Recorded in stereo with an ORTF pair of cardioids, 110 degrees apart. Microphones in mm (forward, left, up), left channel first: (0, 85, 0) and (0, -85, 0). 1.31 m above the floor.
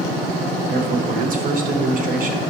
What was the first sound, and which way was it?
A man speaking, 50° right.